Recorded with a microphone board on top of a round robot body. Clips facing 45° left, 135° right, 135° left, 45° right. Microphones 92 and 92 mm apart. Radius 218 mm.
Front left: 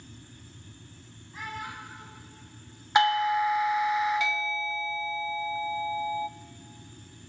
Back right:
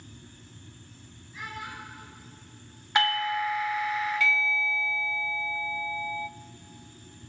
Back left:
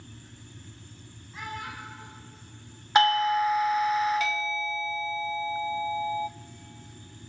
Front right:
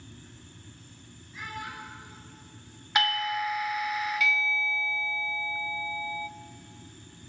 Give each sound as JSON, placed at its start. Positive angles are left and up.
{"t": 1.3, "sound": "a child speaking", "azimuth_deg": 90, "distance_m": 8.0}
{"t": 3.0, "sound": "a doorbell", "azimuth_deg": 105, "distance_m": 0.5}